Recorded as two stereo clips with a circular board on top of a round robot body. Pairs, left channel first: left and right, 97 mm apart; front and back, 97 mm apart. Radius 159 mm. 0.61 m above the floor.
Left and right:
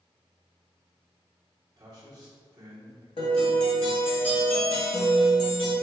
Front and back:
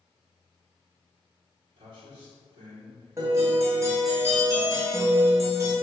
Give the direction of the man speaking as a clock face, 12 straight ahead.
5 o'clock.